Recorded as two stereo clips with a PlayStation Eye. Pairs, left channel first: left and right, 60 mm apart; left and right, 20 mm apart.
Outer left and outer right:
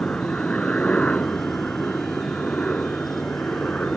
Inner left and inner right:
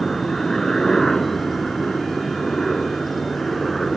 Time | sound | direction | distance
0.0 | a helicopter | 20° left (ahead or behind) | ?